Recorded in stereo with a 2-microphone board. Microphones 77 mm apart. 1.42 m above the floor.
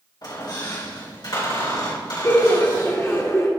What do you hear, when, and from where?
0.2 s a squeak: 65° left (ahead or behind), 3 m
2.2 s laughter: 40° left (ahead or behind), 1.5 m